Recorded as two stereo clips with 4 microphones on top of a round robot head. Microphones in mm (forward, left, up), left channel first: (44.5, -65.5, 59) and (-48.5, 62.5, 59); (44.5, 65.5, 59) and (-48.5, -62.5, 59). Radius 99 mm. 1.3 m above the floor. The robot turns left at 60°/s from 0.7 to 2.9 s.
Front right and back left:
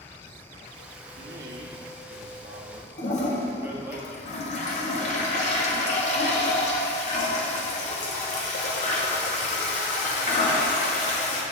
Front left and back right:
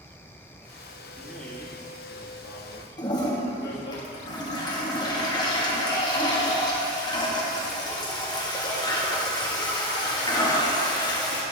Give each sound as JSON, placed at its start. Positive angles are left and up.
{"t": 1.2, "sound": "a man speaking", "azimuth_deg": 155, "distance_m": 1.8}
{"t": 3.0, "sound": "a toilet flushing", "azimuth_deg": -10, "distance_m": 1.7}